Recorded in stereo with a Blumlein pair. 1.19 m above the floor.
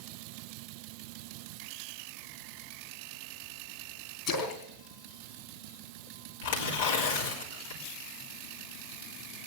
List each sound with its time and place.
4.3 s a splash: 30° left, 3.5 m
6.4 s tearing paper: 60° left, 3.5 m